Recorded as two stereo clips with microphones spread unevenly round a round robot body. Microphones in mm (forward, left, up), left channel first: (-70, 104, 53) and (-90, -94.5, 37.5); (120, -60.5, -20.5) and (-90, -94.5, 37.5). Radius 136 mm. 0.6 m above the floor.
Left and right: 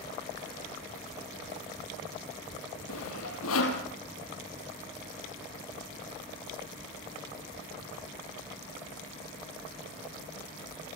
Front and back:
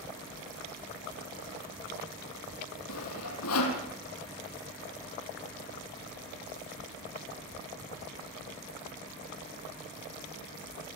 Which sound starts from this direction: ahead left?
Sawing, at 2.9 s.